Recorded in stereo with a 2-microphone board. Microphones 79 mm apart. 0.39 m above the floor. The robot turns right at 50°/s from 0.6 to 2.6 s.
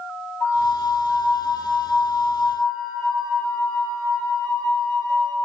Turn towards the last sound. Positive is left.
turn(degrees=175)